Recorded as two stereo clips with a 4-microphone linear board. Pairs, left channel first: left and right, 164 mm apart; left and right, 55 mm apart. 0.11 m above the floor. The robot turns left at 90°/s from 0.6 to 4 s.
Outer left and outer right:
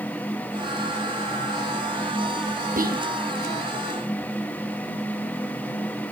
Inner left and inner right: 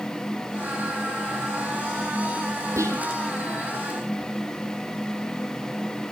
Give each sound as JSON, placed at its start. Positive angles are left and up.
{"t": 2.8, "sound": "whispering", "side_deg": -50, "distance_m": 3.5}